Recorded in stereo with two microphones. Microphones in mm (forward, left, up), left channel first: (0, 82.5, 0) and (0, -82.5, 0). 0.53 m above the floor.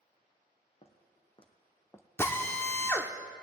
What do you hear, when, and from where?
0.8 s footsteps: 40° left (ahead or behind), 1.5 m; by 2.1 s 10° left (ahead or behind), 0.6 m
2.2 s a drill: 15° left (ahead or behind), 0.7 m